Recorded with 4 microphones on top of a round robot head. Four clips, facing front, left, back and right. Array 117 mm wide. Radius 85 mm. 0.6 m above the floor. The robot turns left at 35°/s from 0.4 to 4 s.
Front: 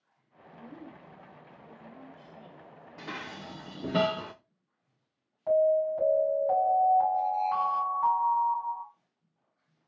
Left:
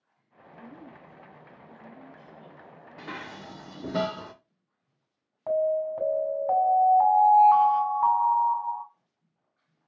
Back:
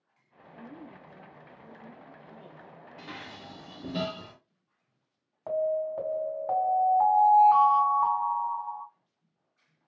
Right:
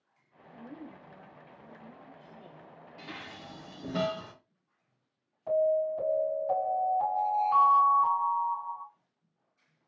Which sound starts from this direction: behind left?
An alarm, at 5.5 s.